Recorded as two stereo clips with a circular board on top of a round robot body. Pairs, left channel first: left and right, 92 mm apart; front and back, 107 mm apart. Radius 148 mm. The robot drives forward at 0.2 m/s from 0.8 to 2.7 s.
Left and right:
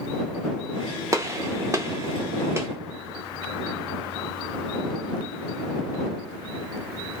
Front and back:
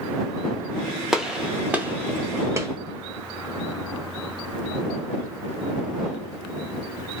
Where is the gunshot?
100° right, 0.8 m; by 2.7 s 135° right, 0.9 m.